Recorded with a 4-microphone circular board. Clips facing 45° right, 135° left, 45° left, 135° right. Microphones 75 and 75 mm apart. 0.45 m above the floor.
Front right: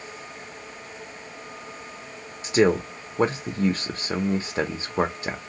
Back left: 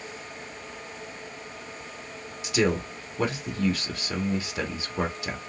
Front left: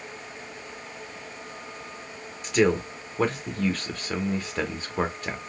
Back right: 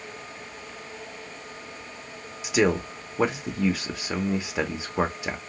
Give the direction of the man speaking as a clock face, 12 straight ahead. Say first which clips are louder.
Front right 5 dB, front left 1 dB; 2 o'clock.